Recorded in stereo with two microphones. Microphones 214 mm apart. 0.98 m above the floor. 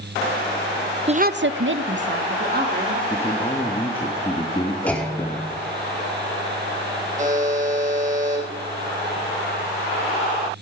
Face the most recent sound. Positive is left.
turn(degrees=-35)  # may be behind; listen again after turning